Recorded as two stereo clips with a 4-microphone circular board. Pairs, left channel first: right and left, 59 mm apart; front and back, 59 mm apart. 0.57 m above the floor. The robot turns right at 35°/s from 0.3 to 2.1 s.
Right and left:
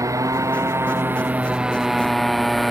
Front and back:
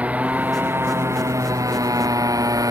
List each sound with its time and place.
0.0 s a motorcycle: 115° left; by 2.7 s straight behind